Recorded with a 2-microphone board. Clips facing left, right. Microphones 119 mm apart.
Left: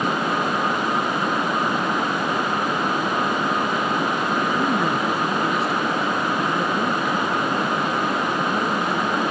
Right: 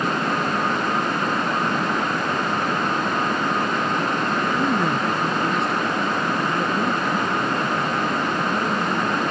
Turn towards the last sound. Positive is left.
turn(degrees=5)  # may be behind; listen again after turning